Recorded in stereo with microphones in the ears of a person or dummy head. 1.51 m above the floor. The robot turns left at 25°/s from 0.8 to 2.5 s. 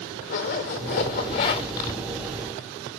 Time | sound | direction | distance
0.3 | a zipper | 60° left (ahead or behind) | 2.0 m